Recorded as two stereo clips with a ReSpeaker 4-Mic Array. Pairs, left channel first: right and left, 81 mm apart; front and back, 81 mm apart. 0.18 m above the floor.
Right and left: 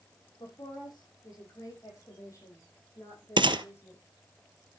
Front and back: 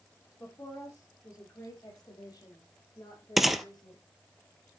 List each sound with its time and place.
0.4 s a woman speaking: 55° right, 5 m; by 4.0 s 30° right, 7 m
3.4 s a gunshot: 90° left, 0.7 m